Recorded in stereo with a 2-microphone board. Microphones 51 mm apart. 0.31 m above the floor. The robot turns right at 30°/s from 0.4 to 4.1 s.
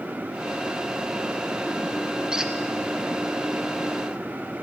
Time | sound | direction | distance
2.3 | a squeak | 15° right (ahead or behind) | 1.1 m